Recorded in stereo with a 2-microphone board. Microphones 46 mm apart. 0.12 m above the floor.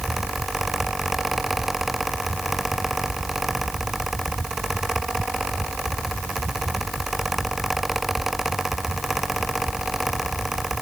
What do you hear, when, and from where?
Only background noise.